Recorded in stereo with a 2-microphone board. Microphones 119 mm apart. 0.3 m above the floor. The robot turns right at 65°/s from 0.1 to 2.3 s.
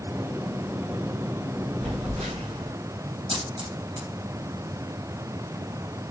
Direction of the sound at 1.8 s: 95° right.